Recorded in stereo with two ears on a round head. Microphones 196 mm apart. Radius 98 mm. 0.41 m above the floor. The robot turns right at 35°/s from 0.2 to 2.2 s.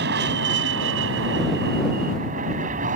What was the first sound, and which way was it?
An aircraft, 115° right.